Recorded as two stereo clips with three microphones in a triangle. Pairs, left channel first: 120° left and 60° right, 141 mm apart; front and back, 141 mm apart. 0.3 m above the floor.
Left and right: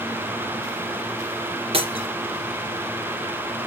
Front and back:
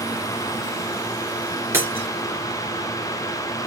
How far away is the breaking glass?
About 3 m.